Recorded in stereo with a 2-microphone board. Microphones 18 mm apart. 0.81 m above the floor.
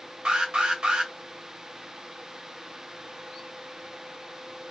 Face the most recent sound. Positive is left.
turn(degrees=-60)  # may be behind; listen again after turning